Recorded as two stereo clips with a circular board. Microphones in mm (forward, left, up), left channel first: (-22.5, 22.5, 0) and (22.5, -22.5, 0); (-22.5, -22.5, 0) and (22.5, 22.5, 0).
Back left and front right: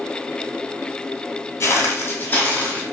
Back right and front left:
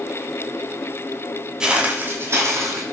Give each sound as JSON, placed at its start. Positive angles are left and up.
{"t": 1.6, "sound": "footsteps", "azimuth_deg": 120, "distance_m": 0.9}